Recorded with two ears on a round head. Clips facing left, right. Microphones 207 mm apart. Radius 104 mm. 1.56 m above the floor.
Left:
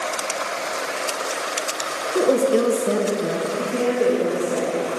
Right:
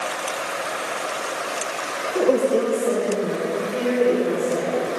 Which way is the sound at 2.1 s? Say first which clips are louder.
Left 1 dB; 10° left (ahead or behind).